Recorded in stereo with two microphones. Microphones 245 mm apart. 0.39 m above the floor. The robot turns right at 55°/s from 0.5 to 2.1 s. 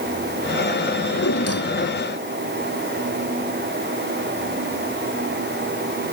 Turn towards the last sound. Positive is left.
turn(degrees=135)